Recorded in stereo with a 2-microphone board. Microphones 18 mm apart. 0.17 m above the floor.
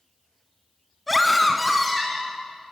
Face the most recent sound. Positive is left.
turn(degrees=-10)  # may be behind; listen again after turning